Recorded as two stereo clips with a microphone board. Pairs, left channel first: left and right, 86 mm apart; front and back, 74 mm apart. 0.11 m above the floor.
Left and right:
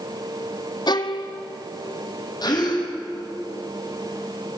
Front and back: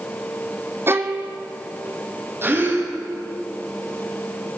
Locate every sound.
0.9 s a violin: 125° left, 1.4 m
2.4 s a gasp: 125° left, 5.5 m